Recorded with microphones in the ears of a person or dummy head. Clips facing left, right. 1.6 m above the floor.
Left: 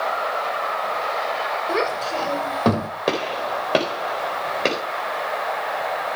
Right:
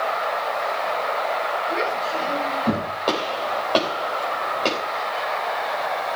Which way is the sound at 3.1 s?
25° left (ahead or behind).